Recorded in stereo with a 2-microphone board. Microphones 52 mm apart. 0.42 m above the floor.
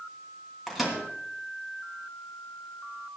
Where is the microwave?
Centre (ahead or behind), 3 m.